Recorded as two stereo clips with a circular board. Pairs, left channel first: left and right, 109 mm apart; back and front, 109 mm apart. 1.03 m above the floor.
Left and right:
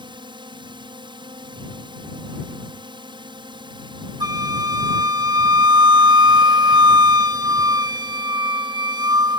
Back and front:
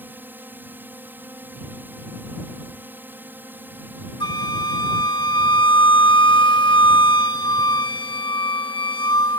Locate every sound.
0.0 s a drone: 65° right
4.2 s a flute: 135° right